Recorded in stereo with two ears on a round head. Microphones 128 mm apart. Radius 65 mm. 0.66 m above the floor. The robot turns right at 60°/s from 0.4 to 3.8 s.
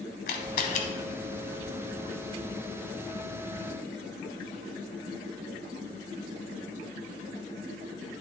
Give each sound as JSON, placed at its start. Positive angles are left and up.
{"t": 0.3, "sound": "a camera shutter", "side_deg": 65, "distance_m": 0.9}